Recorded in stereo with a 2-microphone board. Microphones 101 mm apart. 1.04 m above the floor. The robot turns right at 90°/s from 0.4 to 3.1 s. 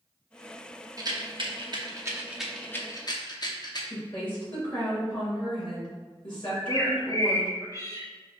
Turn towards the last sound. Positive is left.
turn(degrees=35)  # may be behind; listen again after turning